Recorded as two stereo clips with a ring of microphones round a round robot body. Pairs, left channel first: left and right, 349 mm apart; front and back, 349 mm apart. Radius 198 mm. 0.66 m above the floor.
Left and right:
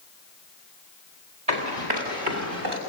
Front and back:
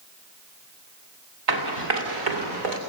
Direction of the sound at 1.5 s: 165° right.